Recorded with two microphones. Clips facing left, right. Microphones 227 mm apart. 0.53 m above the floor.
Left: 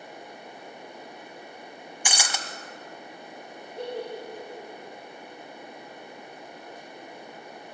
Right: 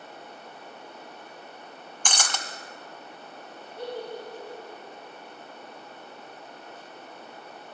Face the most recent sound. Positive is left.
turn(degrees=35)  # may be behind; listen again after turning